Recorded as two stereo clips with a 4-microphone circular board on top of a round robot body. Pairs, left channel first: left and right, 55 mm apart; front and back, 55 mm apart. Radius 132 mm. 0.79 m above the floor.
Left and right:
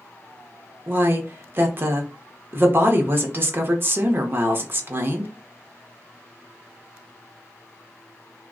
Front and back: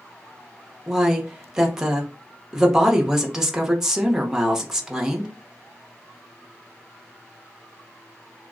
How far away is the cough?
I don't hear a cough.